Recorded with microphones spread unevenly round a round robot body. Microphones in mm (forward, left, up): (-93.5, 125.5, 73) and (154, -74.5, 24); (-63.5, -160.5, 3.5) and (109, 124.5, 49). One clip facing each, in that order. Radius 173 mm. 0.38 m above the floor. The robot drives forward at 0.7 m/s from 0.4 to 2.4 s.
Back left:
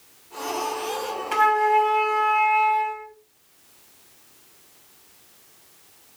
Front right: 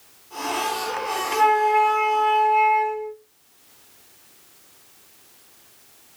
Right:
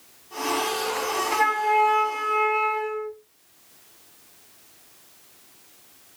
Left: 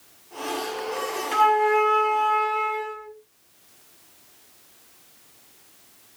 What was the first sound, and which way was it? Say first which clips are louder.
A flute: front right 2 dB, left 9 dB; 130° left.